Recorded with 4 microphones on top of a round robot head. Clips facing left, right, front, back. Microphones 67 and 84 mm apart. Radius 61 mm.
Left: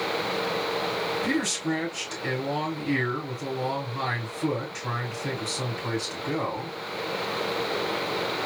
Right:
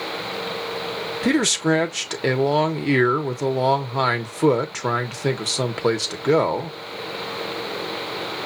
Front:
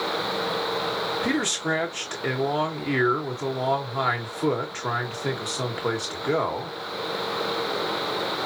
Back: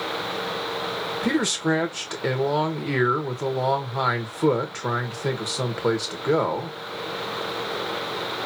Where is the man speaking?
105° right, 1.2 m.